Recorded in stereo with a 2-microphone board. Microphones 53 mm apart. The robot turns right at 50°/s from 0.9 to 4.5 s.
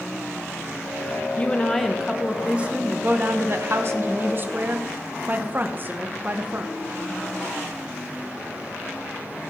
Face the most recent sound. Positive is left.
turn(degrees=-55)